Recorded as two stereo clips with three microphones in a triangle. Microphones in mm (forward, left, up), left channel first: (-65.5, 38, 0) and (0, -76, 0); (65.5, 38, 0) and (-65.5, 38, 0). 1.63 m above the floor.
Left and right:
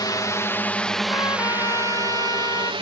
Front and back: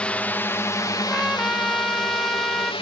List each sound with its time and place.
0.0 s a drone: 75° left; by 2.8 s 30° right
1.0 s a trumpet: 85° left